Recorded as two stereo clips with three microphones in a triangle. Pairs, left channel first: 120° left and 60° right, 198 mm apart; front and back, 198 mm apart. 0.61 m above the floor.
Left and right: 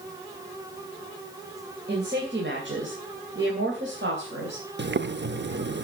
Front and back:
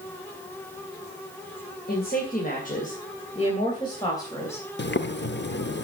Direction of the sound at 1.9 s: 30° right.